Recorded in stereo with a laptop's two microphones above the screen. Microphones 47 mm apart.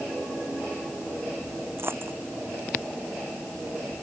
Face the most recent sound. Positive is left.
turn(degrees=-50)  # may be behind; listen again after turning